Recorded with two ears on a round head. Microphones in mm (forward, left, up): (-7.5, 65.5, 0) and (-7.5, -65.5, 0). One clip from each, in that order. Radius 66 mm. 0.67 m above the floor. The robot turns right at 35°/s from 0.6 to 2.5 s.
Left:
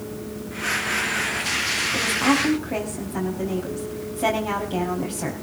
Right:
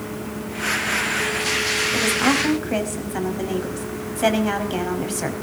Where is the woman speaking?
60° right (ahead or behind), 4.5 m; by 5.3 s 40° right (ahead or behind), 4.5 m.